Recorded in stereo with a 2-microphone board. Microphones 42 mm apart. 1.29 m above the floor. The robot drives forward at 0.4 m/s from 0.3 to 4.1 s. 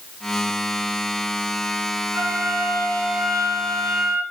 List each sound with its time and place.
2.1 s a flute: 75° right (ahead or behind), 2.5 m; by 4.2 s 60° right (ahead or behind), 3 m